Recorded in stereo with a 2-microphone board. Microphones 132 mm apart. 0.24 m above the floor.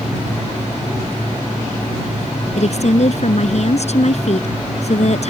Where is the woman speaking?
60° left (ahead or behind).